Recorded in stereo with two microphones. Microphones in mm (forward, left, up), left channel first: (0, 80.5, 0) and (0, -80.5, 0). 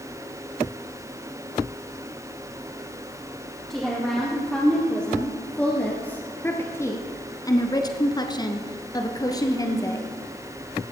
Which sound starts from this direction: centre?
A woman speaking, at 3.7 s.